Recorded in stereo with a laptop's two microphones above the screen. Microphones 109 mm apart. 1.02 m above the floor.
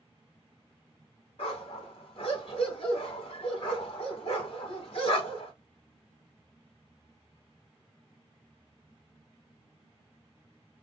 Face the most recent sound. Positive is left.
turn(degrees=65)  # may be behind; listen again after turning